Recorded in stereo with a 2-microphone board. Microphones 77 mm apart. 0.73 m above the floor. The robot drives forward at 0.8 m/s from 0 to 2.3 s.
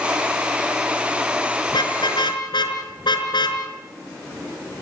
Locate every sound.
1.7 s a car horn: 80° left, 4 m; by 3.6 s 85° left, 4 m